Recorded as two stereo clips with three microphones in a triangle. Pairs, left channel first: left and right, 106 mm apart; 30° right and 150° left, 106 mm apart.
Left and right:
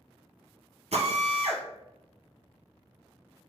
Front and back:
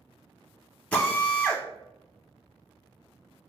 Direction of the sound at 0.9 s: 110° right.